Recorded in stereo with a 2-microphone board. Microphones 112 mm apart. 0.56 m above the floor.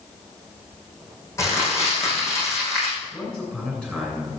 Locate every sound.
1.4 s crumpling: 25° left (ahead or behind), 6 m
3.1 s a man speaking: 10° left (ahead or behind), 7.5 m